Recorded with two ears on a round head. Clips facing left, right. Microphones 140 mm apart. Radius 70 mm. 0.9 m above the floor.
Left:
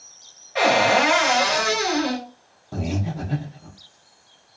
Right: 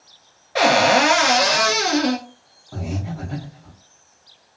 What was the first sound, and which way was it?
A cupboard door, 50° right (ahead or behind).